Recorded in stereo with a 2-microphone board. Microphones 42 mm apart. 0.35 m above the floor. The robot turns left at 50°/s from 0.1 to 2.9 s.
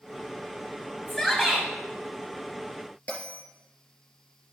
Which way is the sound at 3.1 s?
35° left (ahead or behind).